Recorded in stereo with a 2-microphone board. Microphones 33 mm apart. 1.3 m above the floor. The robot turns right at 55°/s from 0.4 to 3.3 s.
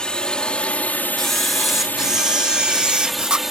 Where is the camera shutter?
165° left; by 3.5 s 75° right.